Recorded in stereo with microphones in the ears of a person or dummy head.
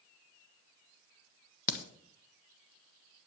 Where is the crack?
50° left (ahead or behind), 1.0 m.